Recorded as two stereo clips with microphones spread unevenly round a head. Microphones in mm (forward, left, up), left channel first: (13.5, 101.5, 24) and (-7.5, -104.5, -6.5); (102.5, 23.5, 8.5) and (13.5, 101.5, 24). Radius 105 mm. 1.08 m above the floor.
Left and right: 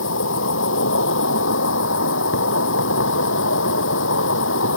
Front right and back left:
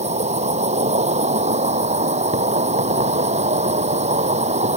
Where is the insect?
115° left.